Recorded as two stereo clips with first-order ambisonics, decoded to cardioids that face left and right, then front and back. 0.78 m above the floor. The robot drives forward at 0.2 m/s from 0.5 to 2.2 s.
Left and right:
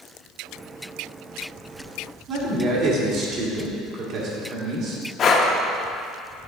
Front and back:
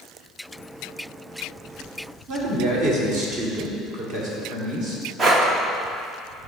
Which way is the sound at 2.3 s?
135° right.